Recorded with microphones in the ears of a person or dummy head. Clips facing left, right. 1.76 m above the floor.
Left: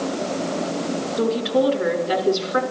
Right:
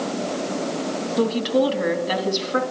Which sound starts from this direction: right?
A woman speaking, at 1.2 s.